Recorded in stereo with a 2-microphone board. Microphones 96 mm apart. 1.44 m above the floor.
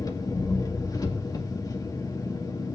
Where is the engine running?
40° left (ahead or behind), 1.9 m.